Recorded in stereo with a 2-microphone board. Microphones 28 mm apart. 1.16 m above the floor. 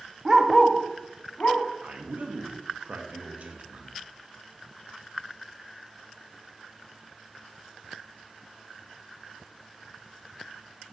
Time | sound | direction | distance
0.2 | a dog barking | 15° right (ahead or behind) | 0.5 m
1.8 | a man speaking | 60° right (ahead or behind) | 0.6 m